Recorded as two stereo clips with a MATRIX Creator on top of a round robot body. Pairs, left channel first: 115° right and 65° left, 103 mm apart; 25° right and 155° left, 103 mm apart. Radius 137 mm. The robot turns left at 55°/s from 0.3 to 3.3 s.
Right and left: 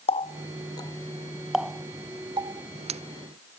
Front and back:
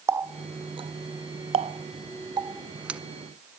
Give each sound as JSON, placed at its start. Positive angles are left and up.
{"t": 0.1, "sound": "a running tap", "azimuth_deg": -140, "distance_m": 0.6}